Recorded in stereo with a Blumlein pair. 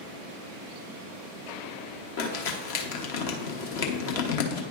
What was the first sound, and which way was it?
Crumpling, 50° left.